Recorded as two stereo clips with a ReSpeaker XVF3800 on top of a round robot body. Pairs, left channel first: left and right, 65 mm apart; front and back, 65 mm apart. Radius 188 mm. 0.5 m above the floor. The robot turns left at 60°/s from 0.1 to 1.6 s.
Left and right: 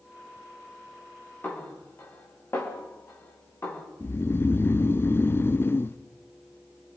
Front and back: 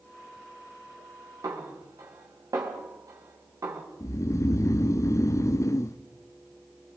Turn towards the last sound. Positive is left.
turn(degrees=35)